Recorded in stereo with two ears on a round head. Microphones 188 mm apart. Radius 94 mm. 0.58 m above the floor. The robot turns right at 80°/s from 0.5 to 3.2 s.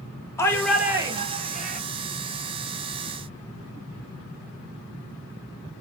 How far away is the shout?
About 1.0 m.